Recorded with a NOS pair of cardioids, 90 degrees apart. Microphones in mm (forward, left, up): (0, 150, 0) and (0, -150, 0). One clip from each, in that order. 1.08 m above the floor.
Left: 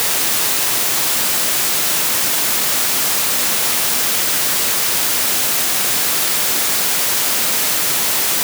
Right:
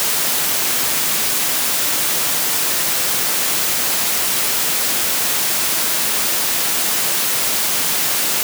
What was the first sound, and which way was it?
Only background noise.